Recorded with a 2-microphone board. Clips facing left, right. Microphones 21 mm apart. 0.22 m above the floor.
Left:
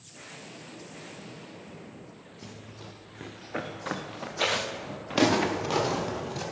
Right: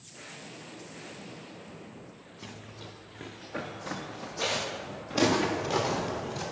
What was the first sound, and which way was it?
Running footsteps, 20° right (ahead or behind).